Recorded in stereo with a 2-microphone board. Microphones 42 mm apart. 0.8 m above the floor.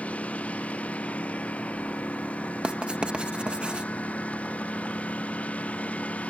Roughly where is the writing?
Right.